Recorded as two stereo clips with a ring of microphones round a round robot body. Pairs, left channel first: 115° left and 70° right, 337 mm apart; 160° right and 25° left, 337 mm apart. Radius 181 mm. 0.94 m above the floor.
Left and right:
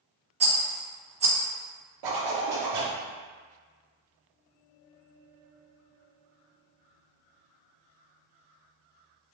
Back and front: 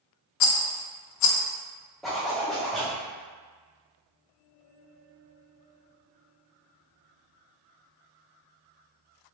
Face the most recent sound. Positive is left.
turn(degrees=-70)